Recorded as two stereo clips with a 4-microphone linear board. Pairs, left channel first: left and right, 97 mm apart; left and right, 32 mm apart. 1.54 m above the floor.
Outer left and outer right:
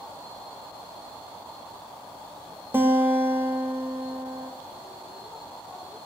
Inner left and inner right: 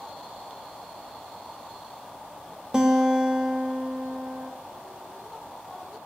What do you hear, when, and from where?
2.7 s a guitar: 25° right (ahead or behind), 3 m